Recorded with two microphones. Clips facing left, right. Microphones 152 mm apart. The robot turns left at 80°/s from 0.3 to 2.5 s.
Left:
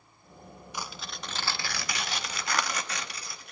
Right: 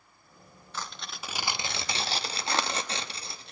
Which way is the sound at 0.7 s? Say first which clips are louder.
Even; 15° left (ahead or behind).